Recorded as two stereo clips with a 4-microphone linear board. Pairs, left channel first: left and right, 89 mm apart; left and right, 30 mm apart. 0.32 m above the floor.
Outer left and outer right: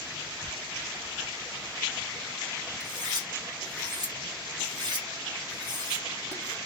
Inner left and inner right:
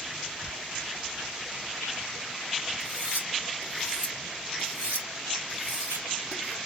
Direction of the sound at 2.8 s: 55° right (ahead or behind).